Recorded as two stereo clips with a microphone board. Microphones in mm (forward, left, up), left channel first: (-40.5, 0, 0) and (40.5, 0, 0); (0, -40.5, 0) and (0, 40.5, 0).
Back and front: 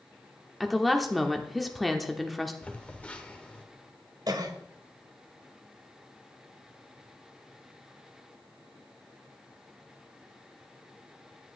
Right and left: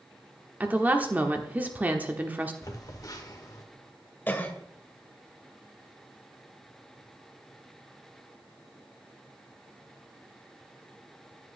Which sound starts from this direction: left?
A woman speaking, at 0.6 s.